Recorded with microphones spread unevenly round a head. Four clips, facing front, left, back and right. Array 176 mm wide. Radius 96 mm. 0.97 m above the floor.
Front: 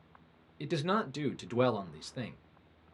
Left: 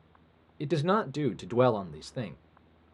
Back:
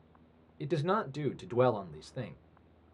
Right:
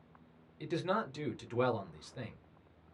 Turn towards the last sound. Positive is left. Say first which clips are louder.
# left 7 dB, back 1 dB
turn(degrees=80)